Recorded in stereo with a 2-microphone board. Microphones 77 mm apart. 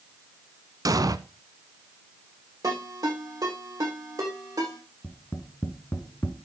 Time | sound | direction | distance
0.8 | an explosion | 50° right (ahead or behind) | 0.6 m
2.6 | a ringtone | 55° right (ahead or behind) | 8 m
5.0 | tapping | 25° left (ahead or behind) | 1.4 m